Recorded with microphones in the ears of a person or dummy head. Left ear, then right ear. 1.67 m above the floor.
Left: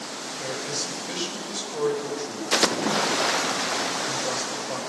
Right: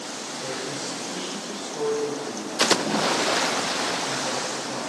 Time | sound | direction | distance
0.4 | a man speaking | 45° left (ahead or behind) | 9.5 m